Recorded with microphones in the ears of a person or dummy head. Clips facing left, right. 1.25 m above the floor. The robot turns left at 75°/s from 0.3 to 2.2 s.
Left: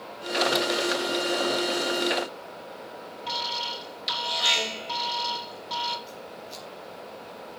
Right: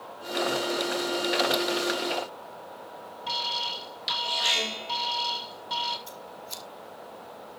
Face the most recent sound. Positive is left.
turn(degrees=-75)  # may be behind; listen again after turning